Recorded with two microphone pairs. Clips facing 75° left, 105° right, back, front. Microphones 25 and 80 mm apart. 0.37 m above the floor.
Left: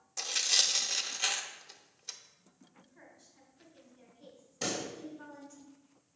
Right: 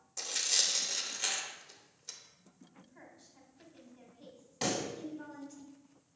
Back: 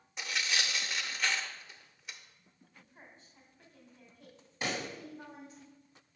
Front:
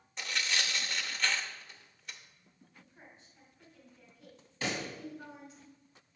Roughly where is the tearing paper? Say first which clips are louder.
Left 3 dB, even; left.